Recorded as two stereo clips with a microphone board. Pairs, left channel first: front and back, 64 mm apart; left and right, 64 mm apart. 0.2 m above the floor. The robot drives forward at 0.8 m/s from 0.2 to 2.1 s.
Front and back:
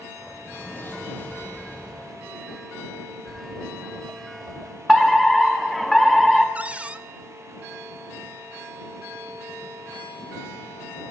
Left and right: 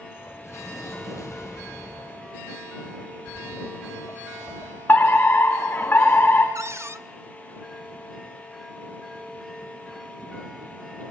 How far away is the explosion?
About 5 m.